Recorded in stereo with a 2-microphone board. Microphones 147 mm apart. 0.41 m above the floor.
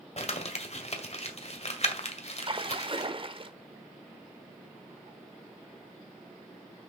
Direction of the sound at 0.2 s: 45° left (ahead or behind).